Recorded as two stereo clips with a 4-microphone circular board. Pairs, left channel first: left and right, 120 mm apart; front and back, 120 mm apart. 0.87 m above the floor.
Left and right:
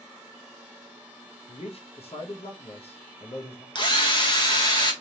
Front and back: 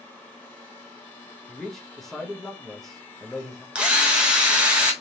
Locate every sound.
1.5 s a man speaking: 85° left, 0.9 m
3.8 s a drill: 105° left, 0.8 m